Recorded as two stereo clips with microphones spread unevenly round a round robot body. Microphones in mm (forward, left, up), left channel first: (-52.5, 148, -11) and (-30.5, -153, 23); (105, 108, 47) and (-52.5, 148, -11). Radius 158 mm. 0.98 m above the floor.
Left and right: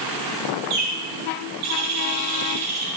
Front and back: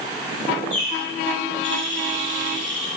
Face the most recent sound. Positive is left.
turn(degrees=-120)